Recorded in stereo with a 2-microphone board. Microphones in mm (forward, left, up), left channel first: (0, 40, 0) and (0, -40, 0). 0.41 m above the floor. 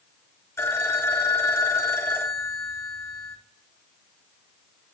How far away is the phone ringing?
About 2 m.